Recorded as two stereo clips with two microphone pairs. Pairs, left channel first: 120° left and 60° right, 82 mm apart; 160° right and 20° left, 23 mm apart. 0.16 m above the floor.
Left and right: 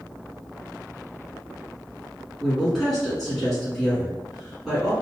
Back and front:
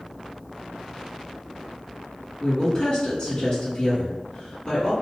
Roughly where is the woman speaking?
Behind right.